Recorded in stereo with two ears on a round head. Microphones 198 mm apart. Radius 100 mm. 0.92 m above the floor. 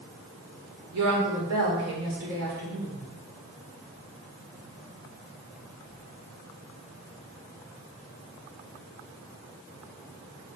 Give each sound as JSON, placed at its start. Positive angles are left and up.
{"t": 0.9, "sound": "a woman speaking", "side_deg": -75, "distance_m": 3.5}